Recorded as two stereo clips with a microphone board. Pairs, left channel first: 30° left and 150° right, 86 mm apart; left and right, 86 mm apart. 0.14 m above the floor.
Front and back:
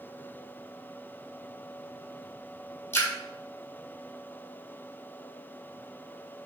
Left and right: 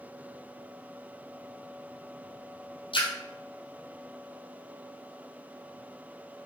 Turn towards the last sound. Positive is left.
turn(degrees=95)